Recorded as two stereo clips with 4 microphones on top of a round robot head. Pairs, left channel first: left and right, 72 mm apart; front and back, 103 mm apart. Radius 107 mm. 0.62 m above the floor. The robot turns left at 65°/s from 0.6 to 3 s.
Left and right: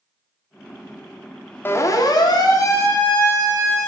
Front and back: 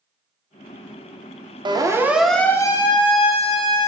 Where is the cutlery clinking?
I don't hear cutlery clinking.